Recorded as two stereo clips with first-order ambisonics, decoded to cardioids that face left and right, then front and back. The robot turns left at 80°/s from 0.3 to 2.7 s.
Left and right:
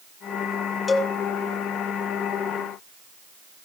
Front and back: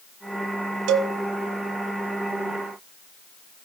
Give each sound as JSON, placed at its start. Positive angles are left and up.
{"t": 0.9, "sound": "a cowbell", "azimuth_deg": 165, "distance_m": 1.6}